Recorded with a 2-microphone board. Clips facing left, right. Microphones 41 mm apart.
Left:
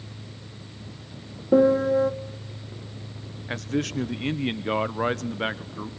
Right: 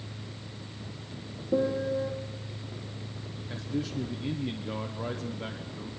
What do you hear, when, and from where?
1.5 s a piano: 70° left (ahead or behind), 1.3 m
3.5 s a man speaking: 70° left (ahead or behind), 0.9 m